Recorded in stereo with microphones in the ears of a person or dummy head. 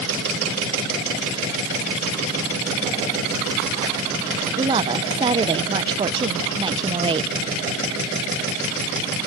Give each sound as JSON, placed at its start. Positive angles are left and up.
{"t": 4.6, "sound": "a woman speaking", "side_deg": -20}